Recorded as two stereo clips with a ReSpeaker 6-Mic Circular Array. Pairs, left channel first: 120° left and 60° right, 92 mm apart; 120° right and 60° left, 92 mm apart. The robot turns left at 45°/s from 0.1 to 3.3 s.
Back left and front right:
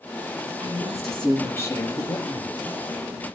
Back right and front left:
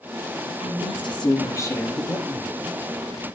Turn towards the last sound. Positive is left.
turn(degrees=105)